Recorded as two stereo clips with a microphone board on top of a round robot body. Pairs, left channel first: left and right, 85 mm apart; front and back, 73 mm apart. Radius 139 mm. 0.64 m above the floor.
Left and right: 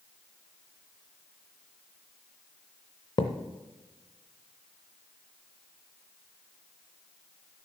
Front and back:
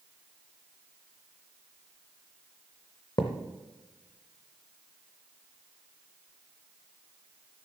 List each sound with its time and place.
3.2 s a thud: 50° left, 0.6 m